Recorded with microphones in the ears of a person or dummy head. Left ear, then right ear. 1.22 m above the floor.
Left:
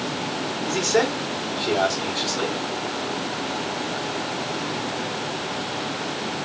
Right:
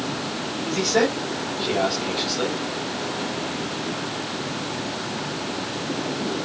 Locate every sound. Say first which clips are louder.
0.7 s a man speaking: even; 55° left (ahead or behind), 5 m